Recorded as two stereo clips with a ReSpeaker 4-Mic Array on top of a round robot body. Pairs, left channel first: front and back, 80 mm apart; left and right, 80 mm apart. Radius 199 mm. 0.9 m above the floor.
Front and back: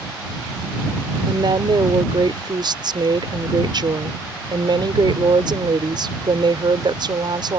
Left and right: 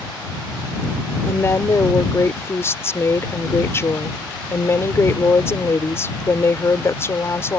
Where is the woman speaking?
150° left.